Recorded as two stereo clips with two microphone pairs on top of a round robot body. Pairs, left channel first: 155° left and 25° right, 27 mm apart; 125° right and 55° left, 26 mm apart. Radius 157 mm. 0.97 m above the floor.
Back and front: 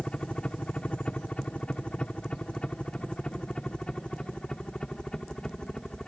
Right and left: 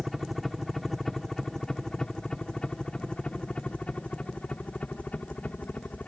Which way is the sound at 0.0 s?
130° left.